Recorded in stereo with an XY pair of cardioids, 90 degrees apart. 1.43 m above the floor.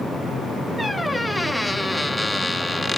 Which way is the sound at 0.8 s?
Straight ahead.